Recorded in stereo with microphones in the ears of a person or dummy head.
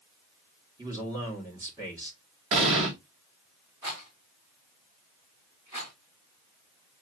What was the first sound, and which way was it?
A man speaking, 15° right (ahead or behind).